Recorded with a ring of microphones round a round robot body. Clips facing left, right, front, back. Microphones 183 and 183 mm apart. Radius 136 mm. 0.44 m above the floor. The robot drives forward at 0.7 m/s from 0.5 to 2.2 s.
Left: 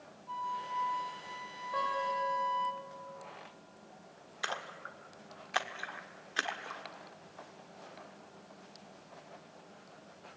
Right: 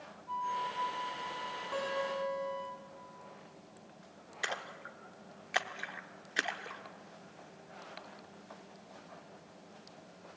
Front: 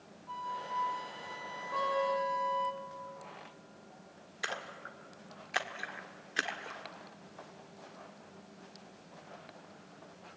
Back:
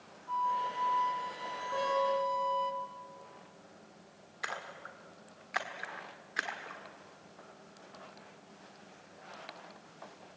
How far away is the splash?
About 1.5 m.